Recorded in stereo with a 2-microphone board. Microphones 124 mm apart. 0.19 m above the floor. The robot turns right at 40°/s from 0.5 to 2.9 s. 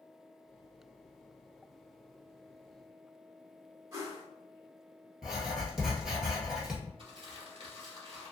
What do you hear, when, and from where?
3.9 s a whoosh: 30° right (ahead or behind), 1.3 m
5.2 s writing: centre (ahead or behind), 1.1 m
7.0 s crumpling: 50° right (ahead or behind), 1.4 m